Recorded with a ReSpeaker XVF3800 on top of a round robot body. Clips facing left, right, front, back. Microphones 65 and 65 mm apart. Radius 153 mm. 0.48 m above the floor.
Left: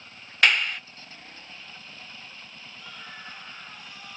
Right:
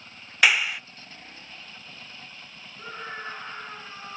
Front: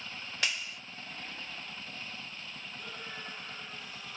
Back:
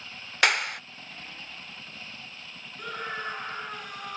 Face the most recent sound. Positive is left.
turn(degrees=-150)